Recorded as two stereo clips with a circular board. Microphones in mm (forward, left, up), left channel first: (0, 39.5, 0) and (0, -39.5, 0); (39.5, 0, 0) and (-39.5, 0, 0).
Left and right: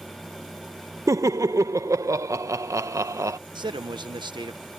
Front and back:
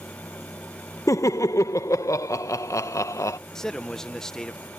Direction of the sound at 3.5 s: 85° right.